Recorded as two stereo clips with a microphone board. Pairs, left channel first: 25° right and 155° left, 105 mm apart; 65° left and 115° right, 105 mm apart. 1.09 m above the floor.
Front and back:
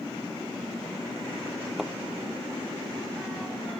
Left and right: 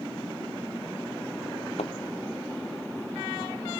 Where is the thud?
70° left.